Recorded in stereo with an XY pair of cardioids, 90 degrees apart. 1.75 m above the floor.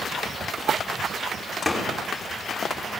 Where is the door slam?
20° left, 3.5 m.